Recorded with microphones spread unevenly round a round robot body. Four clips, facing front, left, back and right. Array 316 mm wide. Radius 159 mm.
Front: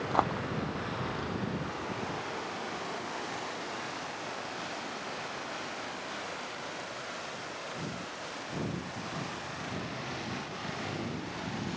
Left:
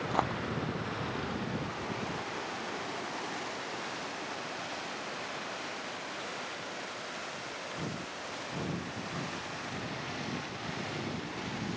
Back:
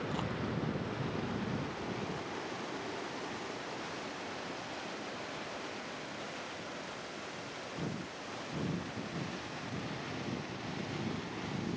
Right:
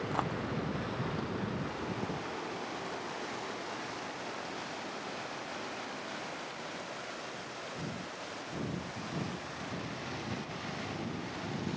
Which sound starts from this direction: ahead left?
A dropped coin, at 0.1 s.